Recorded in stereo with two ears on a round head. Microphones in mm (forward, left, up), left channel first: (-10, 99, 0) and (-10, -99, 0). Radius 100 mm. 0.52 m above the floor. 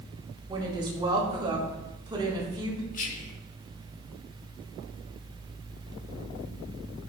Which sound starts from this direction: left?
Whispering, at 2.9 s.